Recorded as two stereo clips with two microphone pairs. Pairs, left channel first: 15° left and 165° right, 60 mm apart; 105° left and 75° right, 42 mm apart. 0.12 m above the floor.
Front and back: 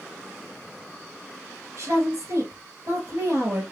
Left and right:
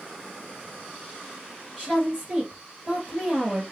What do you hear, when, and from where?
1.8 s a woman speaking: 135° right, 2.5 m